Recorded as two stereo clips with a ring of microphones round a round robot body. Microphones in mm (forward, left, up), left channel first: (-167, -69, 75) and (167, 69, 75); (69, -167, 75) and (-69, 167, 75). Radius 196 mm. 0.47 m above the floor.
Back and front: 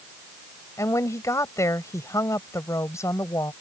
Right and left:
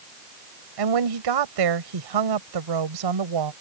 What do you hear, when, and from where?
0.8 s a woman speaking: 120° left